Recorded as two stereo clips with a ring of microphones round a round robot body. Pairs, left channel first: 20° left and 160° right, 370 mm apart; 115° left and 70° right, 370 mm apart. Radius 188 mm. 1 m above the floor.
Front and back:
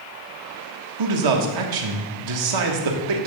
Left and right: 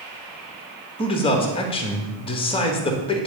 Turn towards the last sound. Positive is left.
turn(degrees=-175)